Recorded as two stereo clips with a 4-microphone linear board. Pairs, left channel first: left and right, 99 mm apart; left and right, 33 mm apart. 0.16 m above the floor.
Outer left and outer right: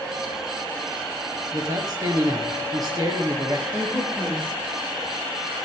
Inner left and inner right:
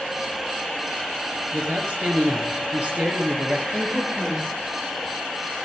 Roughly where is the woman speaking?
Centre.